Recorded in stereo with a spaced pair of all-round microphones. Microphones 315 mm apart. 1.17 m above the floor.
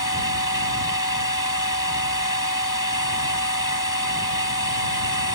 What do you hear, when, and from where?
0.0 s a machine running: 80° left